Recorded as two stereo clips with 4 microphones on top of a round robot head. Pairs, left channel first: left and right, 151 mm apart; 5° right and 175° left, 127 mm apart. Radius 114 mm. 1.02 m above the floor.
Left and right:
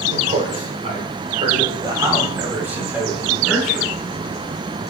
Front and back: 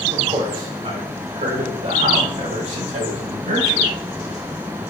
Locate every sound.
0.1 s a man speaking: 125° right, 3.5 m; by 3.9 s 175° left, 3.5 m